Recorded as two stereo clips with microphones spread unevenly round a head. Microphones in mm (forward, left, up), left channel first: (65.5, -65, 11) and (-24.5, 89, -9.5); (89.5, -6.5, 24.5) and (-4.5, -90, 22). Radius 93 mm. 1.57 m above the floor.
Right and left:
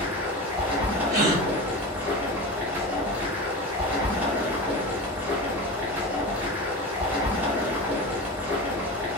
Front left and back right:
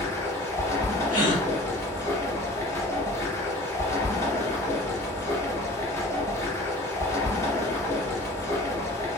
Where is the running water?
35° left, 0.8 m.